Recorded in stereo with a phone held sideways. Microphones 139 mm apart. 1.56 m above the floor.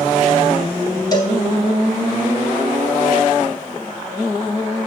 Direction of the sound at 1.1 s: 30° left (ahead or behind).